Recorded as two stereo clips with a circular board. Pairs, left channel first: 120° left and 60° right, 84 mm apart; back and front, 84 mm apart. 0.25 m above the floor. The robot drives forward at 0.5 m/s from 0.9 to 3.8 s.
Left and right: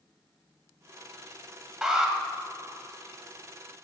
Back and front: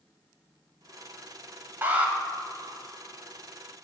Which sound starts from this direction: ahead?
An alarm, at 1.8 s.